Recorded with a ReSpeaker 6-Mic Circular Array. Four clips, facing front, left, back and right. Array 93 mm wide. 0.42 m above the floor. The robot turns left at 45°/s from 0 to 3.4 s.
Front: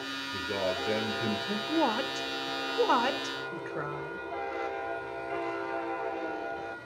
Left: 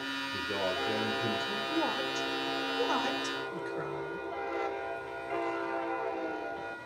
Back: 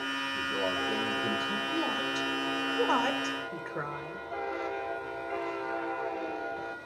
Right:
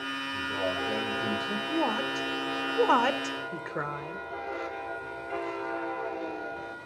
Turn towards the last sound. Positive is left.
turn(degrees=-95)